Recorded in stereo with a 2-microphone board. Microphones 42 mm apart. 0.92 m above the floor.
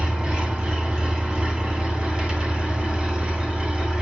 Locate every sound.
0.0 s an engine running: 25° right (ahead or behind), 2.5 m